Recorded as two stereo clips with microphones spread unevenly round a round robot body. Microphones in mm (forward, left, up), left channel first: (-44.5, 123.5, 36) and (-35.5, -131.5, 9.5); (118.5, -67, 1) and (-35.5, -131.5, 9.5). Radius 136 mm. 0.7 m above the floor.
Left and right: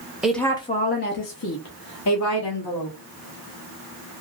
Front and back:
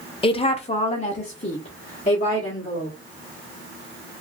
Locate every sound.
0.2 s a woman speaking: 10° right, 0.6 m; by 3.0 s 85° left, 1.4 m